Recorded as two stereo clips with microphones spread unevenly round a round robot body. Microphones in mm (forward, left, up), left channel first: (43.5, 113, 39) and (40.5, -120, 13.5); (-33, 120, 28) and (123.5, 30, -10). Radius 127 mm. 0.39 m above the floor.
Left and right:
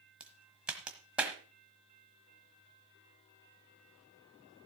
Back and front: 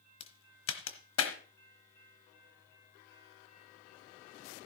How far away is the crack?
About 1.2 m.